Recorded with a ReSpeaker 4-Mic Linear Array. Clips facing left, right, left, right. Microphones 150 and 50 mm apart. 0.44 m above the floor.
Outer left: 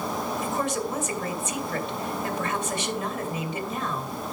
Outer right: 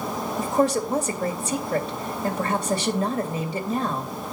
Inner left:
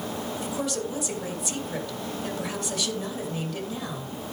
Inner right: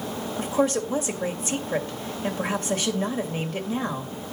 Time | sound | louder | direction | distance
0.4 | a woman speaking | outer right 9 dB, inner right 9 dB | 35° right (ahead or behind) | 2.5 m